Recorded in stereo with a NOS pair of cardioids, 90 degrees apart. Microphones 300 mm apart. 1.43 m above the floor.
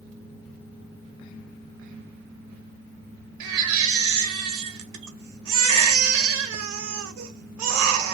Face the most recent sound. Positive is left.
turn(degrees=-70)